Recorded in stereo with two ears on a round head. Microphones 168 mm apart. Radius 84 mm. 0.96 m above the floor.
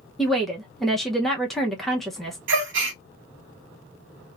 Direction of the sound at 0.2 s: Centre (ahead or behind).